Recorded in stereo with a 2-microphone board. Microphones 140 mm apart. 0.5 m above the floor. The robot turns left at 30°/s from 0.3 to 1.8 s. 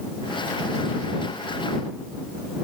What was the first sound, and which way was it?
Only background noise.